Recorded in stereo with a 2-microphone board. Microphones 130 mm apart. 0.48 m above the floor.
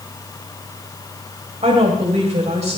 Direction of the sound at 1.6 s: 60° right (ahead or behind).